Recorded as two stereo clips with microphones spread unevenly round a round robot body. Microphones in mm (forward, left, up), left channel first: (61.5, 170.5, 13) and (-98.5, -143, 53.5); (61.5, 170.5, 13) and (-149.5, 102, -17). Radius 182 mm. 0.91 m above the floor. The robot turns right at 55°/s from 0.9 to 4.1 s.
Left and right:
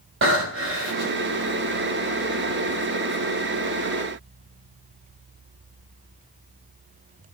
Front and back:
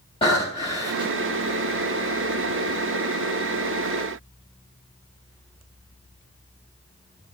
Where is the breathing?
60° right, 3.5 m; by 1.2 s 45° right, 3.5 m.